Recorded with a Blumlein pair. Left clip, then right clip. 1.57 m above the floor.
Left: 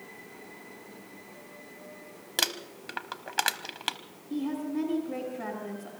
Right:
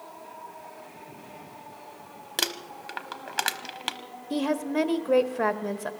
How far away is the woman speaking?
About 1.2 m.